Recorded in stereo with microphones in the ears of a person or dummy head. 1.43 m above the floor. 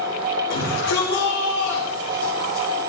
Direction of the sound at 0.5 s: 75° left (ahead or behind).